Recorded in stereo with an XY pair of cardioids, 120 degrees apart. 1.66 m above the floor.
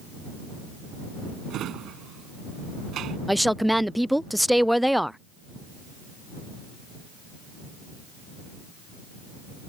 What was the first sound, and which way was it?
A drawer, 65° right.